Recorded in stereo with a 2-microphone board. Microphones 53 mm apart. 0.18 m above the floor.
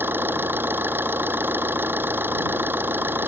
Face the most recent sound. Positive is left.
turn(degrees=-40)  # may be behind; listen again after turning